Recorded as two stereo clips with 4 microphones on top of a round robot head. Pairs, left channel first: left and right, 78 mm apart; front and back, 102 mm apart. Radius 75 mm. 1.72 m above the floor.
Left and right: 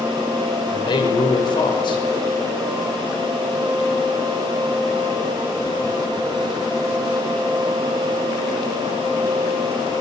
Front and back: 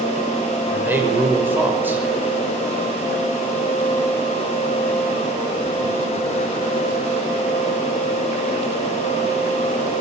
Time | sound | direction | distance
0.7 | a man speaking | 105° left | 6 m